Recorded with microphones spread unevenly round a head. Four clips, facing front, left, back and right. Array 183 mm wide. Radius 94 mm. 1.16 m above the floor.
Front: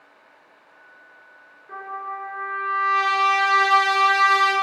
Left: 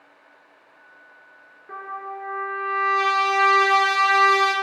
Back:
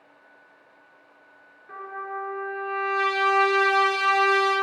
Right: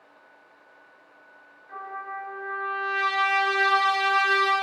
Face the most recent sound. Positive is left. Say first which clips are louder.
# left 2 dB, front 2 dB
turn(degrees=85)